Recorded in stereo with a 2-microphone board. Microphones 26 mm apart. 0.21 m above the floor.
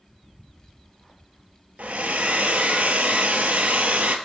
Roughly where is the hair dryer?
Right.